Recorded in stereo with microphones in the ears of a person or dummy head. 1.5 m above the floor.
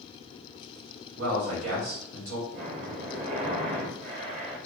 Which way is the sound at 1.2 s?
70° right (ahead or behind).